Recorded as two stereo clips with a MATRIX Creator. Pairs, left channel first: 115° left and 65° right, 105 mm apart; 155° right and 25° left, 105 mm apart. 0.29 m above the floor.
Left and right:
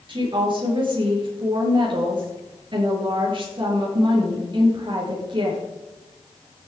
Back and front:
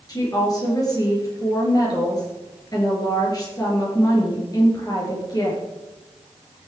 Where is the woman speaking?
105° right, 5 m.